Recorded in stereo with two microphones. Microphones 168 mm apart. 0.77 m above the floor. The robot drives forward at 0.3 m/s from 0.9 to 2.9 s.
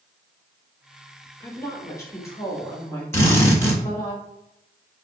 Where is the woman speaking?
20° left (ahead or behind), 0.9 m; by 4.1 s 15° left (ahead or behind), 1.2 m.